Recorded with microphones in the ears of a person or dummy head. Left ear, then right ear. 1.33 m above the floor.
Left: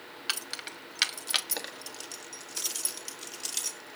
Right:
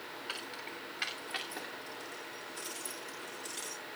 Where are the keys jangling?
65° left (ahead or behind), 1.1 m.